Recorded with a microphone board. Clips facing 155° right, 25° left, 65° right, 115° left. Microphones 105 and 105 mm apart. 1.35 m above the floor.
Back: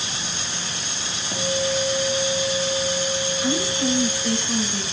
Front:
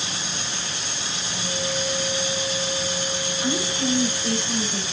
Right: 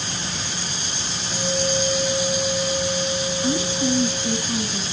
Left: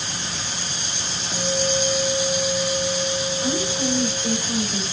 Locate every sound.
1.3 s a guitar: 175° right, 4 m
3.4 s a woman speaking: 105° left, 6.5 m